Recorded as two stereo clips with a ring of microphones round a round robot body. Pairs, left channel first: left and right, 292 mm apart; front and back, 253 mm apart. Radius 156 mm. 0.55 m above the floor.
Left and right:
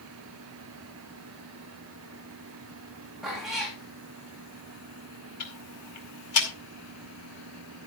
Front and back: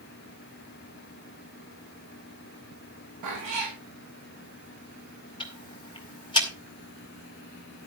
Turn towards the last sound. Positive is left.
turn(degrees=70)